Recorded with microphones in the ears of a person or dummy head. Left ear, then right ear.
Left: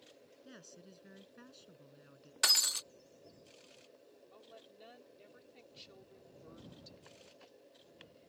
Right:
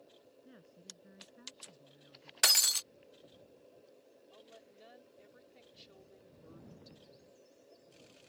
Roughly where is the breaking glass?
Centre.